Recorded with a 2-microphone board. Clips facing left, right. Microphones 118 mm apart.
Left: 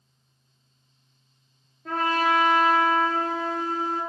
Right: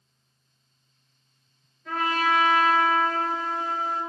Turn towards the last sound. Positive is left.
turn(degrees=40)  # may be behind; listen again after turning